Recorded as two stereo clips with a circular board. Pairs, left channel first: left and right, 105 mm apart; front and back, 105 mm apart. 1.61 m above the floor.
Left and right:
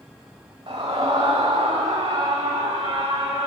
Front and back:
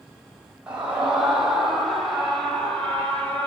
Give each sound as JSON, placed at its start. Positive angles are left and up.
{"t": 0.7, "sound": "a scream", "azimuth_deg": -100, "distance_m": 4.0}